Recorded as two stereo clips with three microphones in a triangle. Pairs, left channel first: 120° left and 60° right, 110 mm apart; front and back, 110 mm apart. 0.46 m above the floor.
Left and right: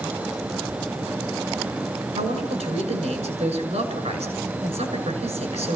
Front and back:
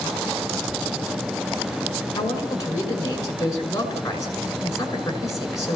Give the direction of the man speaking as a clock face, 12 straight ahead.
2 o'clock.